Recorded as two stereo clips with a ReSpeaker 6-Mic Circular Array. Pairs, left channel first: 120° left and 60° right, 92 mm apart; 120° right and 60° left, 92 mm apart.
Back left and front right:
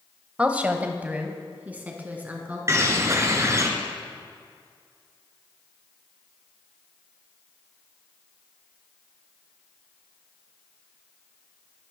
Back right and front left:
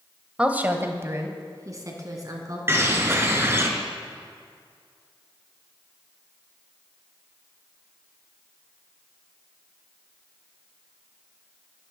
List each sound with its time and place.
0.4 s a woman speaking: straight ahead, 1.1 m; by 2.6 s 15° left, 3.5 m
2.7 s a bird: straight ahead, 1.9 m